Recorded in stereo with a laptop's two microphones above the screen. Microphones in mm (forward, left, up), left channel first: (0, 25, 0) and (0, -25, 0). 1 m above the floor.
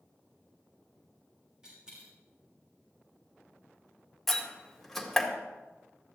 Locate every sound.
1.6 s a dropped coin: 15° right (ahead or behind), 4.5 m
4.3 s a door slam: 5° left (ahead or behind), 2 m